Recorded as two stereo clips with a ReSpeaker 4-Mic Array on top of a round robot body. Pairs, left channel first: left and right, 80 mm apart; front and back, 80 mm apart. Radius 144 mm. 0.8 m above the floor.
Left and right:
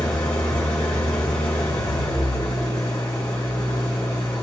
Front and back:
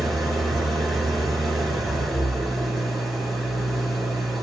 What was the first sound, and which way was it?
An engine running, 90° left.